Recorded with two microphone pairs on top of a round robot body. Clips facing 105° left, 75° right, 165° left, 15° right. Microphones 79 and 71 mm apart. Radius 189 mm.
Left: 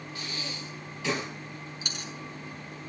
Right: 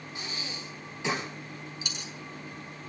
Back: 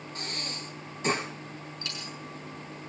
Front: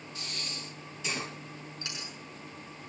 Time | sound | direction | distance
0.1 | breathing | 150° right | 8 m
1.8 | a dropped coin | 55° left | 5.5 m